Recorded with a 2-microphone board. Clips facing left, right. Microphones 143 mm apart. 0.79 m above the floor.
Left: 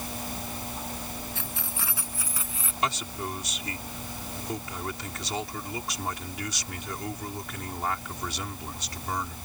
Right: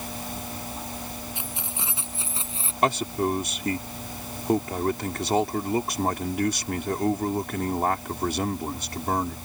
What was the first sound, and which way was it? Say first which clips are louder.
Keys jangling: right 1 dB; 15° right (ahead or behind).